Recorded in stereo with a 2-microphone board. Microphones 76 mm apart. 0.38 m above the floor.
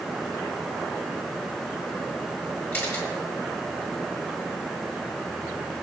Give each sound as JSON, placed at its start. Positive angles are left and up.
{"t": 2.7, "sound": "a camera shutter", "side_deg": 25, "distance_m": 6.0}